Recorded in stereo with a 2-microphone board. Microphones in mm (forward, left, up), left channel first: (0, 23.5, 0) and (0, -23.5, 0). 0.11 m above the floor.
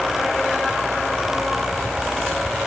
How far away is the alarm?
I don't hear an alarm.